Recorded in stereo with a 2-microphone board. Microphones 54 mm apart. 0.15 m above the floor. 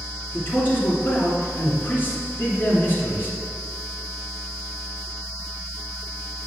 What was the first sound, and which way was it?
A man speaking, 35° left (ahead or behind).